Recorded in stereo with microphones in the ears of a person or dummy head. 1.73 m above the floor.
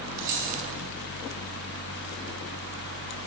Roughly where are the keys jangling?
Right.